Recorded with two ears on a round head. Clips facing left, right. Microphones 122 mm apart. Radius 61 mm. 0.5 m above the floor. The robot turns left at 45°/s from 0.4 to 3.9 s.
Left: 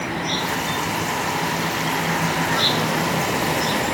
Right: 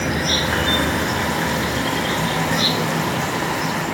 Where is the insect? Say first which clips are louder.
Right 3 dB; 65° right; by 4.0 s 140° left.